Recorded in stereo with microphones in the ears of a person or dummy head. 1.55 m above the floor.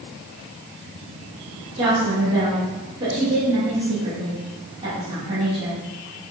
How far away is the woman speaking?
About 3 m.